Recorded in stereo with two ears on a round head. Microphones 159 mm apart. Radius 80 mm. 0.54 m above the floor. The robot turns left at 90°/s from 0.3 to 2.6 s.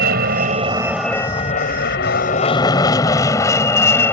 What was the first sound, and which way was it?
An aircraft, 60° right (ahead or behind).